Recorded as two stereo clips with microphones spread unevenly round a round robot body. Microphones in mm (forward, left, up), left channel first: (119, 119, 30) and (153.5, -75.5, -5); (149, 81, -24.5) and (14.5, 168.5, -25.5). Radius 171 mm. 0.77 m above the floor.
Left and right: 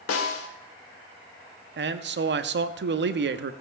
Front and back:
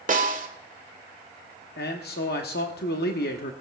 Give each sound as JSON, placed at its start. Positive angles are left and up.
{"t": 0.1, "sound": "a snare drum", "azimuth_deg": 110, "distance_m": 1.7}
{"t": 1.8, "sound": "a man speaking", "azimuth_deg": -70, "distance_m": 0.9}